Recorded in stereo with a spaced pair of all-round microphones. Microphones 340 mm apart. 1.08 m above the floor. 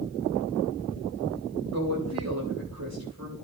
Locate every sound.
1.7 s a woman speaking: 50° right (ahead or behind), 5 m